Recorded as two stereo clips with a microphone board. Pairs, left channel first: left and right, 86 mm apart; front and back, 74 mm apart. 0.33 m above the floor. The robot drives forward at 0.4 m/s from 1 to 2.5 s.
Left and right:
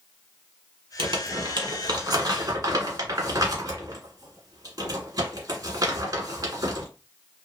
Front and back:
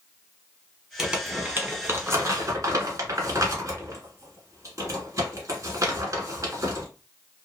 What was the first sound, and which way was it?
Crumpling, 100° right.